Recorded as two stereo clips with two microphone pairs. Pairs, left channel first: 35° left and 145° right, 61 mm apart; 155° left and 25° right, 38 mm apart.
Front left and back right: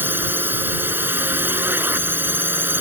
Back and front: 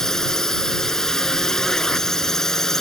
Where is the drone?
140° right.